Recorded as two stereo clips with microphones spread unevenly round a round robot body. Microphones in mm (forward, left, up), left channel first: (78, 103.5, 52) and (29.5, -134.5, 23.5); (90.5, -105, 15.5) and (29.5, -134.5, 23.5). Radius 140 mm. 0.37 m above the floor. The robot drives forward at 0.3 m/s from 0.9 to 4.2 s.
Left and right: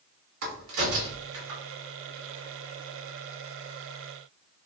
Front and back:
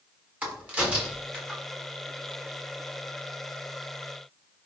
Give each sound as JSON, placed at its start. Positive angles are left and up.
{"t": 0.4, "sound": "a crack", "azimuth_deg": -85, "distance_m": 4.0}